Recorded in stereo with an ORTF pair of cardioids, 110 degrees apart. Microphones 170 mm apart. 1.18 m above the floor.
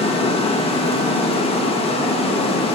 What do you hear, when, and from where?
0.0 s running water: 35° left, 1.4 m